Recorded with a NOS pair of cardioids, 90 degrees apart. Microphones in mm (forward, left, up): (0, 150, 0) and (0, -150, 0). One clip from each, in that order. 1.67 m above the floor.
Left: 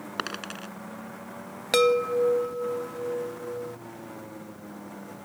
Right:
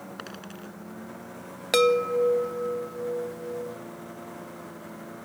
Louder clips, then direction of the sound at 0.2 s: Left 12 dB; 65° left.